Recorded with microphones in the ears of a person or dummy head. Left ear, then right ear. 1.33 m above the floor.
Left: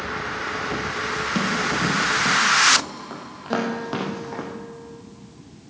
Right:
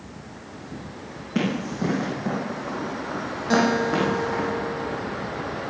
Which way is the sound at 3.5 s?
20° right (ahead or behind).